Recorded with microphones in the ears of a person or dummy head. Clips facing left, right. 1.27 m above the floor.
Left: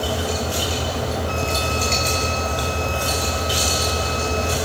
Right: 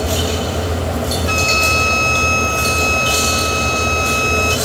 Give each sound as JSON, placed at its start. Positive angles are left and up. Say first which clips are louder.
{"t": 1.3, "sound": "a flute", "louder": "right 4 dB", "side_deg": -80}